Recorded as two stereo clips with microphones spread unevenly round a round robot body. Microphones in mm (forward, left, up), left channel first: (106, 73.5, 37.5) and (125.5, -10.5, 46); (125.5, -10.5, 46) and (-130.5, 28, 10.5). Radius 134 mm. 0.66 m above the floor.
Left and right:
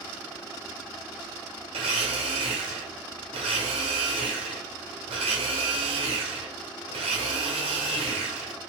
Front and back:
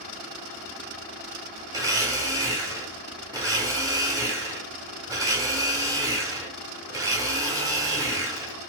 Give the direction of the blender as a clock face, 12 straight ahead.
4 o'clock.